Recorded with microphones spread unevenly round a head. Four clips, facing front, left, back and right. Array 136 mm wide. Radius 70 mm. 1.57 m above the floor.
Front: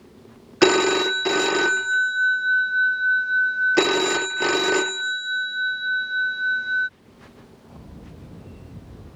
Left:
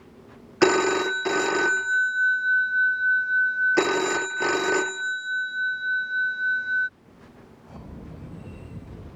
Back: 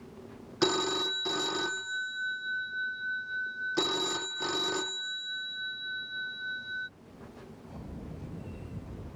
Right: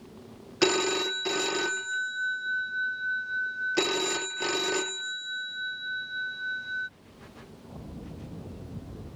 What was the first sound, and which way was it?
A phone ringing, 25° left.